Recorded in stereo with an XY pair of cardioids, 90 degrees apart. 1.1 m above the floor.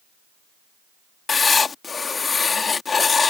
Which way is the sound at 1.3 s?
40° left.